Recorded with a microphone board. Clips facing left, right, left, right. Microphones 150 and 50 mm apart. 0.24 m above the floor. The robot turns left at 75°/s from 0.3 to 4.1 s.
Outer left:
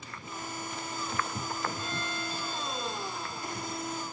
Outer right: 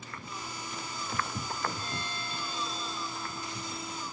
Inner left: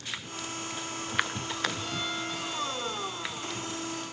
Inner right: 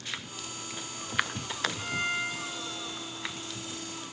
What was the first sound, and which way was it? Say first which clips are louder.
A violin: outer left 3 dB, inner right 3 dB; 60° right.